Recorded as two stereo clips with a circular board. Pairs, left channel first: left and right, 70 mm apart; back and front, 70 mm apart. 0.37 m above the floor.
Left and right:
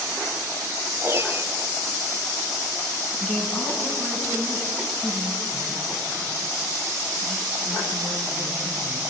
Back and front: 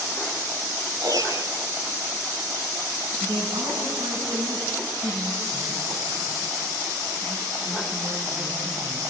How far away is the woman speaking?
About 4.5 m.